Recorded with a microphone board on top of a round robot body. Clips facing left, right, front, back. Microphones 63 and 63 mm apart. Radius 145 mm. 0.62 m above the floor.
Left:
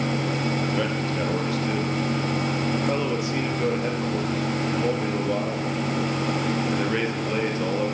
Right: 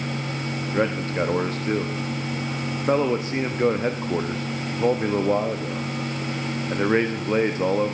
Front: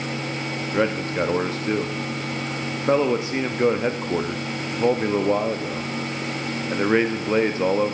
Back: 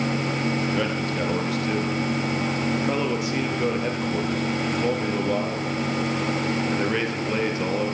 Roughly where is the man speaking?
Ahead right.